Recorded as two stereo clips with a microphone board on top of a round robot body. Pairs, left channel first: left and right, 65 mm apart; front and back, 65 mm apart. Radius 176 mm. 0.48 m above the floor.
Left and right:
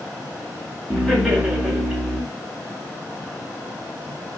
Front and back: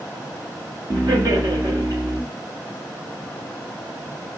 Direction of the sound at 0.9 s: 175° right.